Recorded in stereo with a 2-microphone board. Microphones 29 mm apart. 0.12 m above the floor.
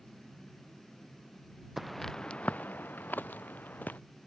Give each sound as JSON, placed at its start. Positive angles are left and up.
{"t": 1.8, "sound": "footsteps", "side_deg": -5}